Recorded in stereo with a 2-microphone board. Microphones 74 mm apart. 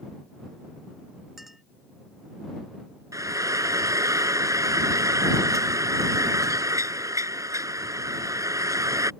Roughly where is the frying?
Right.